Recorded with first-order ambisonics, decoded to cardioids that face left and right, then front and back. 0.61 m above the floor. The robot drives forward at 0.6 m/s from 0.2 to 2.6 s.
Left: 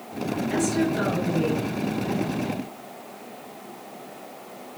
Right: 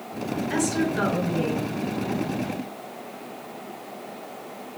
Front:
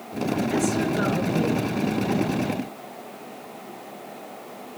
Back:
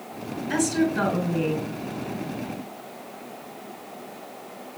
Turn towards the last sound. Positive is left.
turn(degrees=-160)